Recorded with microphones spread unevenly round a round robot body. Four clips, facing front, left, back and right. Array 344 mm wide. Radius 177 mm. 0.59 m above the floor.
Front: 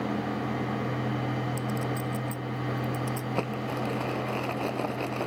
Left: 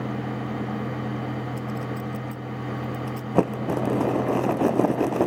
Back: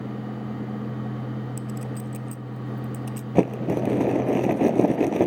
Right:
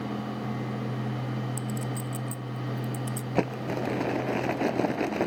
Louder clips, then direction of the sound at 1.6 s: Left 3 dB, front 2 dB; 140° right.